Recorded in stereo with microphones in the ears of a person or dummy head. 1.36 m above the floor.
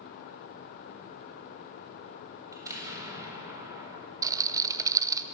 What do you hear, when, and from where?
2.5 s an explosion: 15° right (ahead or behind), 4 m
4.2 s a rattle: 15° right (ahead or behind), 0.8 m